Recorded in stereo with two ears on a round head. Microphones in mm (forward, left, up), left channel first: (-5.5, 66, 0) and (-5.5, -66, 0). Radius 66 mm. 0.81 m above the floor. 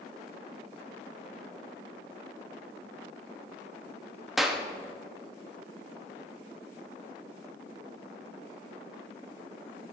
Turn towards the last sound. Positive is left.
turn(degrees=0)  # may be behind; listen again after turning